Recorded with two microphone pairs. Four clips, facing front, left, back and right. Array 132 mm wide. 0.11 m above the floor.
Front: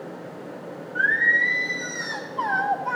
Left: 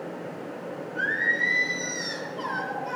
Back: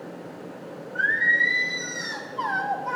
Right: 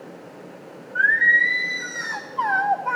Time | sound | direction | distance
0.9 | singing | 65° right | 2.5 m